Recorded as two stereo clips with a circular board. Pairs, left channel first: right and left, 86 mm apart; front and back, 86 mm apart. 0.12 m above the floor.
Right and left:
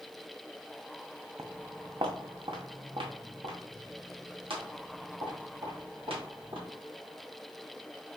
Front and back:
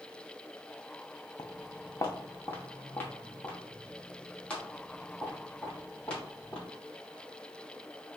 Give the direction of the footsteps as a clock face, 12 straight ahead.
11 o'clock.